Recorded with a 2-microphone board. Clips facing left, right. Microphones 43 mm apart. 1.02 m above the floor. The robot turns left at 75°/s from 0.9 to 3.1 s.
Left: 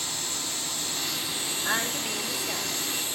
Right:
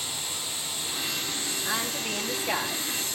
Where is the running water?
160° right, 7 m; by 3.1 s 35° left, 7 m.